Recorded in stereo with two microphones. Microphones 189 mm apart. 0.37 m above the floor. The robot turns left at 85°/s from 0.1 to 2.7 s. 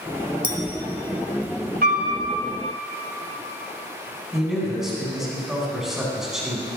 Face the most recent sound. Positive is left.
turn(degrees=0)  # may be behind; listen again after turning